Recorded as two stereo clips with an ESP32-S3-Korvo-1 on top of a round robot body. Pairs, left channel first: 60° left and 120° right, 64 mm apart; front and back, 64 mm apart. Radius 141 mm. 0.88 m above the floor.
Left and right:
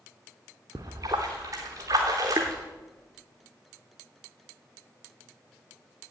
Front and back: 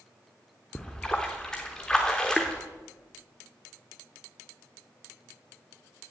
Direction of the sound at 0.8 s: 80° right.